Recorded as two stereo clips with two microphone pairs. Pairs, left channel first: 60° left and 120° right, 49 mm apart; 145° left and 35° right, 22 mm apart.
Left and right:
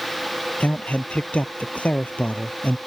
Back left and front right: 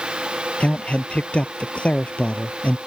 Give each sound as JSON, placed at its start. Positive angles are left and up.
{"t": 0.6, "sound": "a man speaking", "azimuth_deg": 125}